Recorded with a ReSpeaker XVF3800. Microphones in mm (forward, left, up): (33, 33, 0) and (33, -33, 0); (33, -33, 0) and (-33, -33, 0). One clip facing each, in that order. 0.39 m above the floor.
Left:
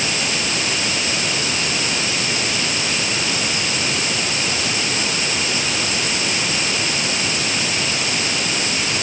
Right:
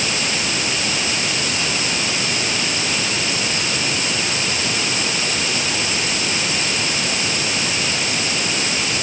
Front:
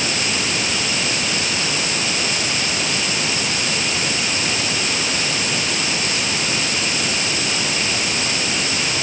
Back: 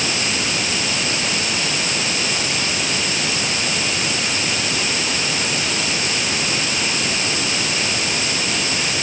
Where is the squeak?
No squeak in this recording.